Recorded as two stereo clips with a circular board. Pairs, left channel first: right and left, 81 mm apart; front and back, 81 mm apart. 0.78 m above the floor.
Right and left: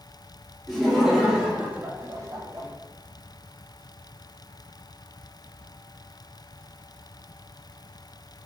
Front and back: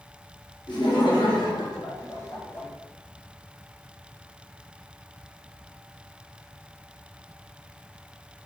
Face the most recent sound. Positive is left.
turn(degrees=65)